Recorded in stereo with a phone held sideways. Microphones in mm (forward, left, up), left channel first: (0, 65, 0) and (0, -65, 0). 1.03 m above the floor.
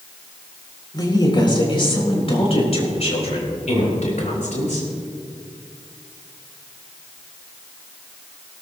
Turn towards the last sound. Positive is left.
turn(degrees=75)  # may be behind; listen again after turning